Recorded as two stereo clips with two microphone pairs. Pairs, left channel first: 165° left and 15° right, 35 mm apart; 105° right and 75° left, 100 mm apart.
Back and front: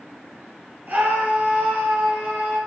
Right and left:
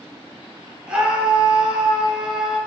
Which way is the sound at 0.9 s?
Straight ahead.